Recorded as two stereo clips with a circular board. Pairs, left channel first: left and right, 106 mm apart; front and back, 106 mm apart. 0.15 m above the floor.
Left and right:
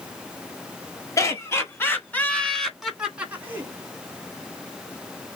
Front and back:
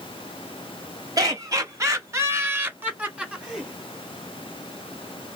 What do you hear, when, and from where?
1.2 s laughter: 140° left, 1.9 m; by 3.7 s 100° right, 1.4 m